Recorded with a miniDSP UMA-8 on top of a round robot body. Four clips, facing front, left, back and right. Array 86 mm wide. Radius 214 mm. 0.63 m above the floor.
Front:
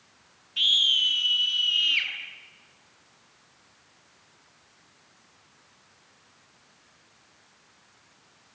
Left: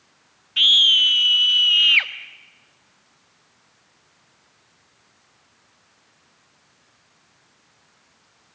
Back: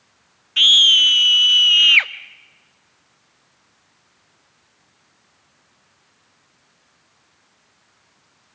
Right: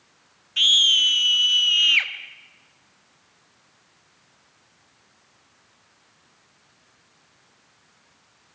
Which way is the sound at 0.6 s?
165° left.